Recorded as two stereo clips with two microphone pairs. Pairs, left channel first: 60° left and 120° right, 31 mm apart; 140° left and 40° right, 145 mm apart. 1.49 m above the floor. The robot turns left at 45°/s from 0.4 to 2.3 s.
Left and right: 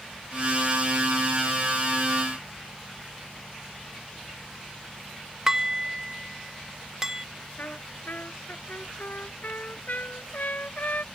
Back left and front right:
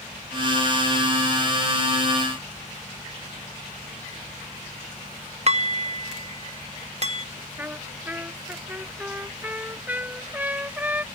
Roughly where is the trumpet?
Ahead left.